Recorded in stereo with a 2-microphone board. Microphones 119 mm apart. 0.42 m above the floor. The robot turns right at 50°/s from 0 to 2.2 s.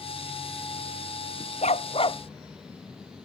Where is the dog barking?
70° left (ahead or behind); by 2.2 s 45° left (ahead or behind).